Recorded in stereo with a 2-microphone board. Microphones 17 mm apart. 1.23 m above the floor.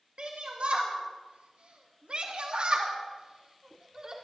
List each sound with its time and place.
0.2 s a shout: 60° right (ahead or behind), 1.9 m; by 4.1 s 40° right (ahead or behind), 3.5 m